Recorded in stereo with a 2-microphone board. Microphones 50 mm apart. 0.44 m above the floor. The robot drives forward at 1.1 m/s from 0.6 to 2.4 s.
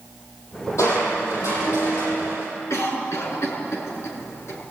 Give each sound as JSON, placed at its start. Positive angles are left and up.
{"t": 0.8, "sound": "crushing", "side_deg": 85, "distance_m": 9.0}
{"t": 2.7, "sound": "a cough", "side_deg": 70, "distance_m": 6.5}